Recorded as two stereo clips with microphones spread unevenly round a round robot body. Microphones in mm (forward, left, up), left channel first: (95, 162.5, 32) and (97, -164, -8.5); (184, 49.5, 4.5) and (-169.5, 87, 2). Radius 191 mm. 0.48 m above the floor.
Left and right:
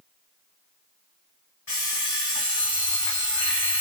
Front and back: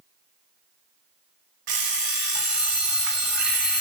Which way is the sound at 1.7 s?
165° left.